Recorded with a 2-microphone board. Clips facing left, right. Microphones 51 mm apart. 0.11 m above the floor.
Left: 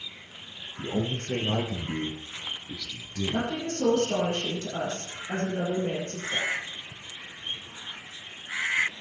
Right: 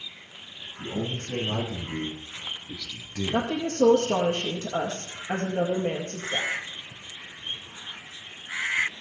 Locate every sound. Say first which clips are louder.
0.8 s a man speaking: left 2 dB; 55° left (ahead or behind), 3.5 m; by 3.5 s 30° right (ahead or behind), 2.5 m
3.3 s a woman speaking: right 5 dB; 45° right (ahead or behind), 2.5 m